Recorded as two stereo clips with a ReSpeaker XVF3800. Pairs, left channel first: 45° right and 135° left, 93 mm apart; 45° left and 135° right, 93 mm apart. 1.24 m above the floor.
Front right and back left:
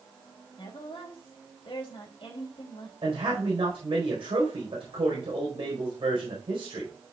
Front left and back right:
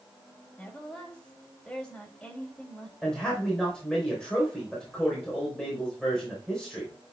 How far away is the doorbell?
No doorbell in this recording.